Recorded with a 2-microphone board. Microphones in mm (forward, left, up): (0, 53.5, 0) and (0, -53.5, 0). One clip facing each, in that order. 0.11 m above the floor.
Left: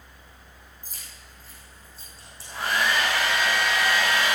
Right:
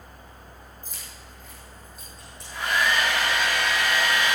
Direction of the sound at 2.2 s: 30° left (ahead or behind).